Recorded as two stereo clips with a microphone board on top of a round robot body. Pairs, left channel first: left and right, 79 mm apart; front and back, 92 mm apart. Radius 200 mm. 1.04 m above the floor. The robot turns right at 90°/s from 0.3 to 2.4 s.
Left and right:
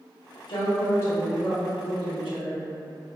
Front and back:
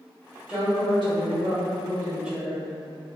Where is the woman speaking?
100° left, 0.9 m; by 2.7 s 90° right, 0.9 m.